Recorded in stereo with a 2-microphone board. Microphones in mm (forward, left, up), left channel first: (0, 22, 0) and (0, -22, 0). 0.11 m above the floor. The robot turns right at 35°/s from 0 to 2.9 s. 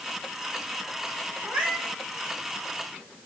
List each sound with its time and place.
1.4 s a cat meowing: 40° right (ahead or behind), 4 m; by 2.0 s 20° right (ahead or behind), 4 m